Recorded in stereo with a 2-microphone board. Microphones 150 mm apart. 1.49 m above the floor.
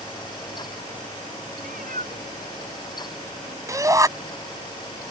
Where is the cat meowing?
75° right (ahead or behind).